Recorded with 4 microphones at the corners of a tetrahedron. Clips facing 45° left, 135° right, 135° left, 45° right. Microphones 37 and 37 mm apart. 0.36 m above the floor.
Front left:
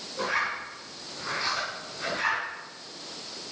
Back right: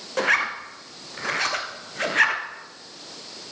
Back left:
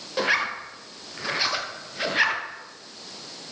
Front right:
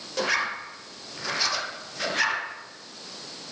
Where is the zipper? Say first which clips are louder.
Back right 7 dB, back left 2 dB; 155° right, 1.4 m.